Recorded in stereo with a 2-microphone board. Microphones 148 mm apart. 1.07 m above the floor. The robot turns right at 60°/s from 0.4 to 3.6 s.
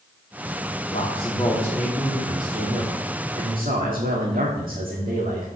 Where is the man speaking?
125° left, 2 m; by 5.5 s 75° right, 2 m.